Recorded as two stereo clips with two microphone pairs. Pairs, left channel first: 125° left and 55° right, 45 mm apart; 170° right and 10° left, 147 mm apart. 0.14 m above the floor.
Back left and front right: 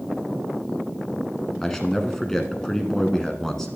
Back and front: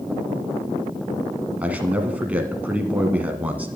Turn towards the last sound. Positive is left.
turn(degrees=65)